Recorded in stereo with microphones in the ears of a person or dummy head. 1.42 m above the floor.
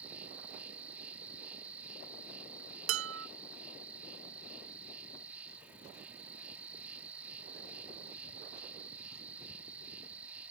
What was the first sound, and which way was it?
An insect, 10° right (ahead or behind).